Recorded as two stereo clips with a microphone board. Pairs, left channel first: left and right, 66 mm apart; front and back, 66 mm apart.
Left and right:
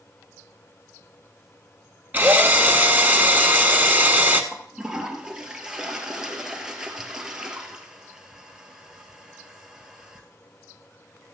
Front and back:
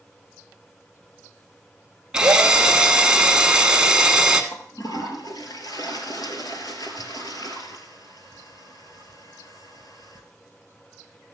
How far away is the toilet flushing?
About 1.6 m.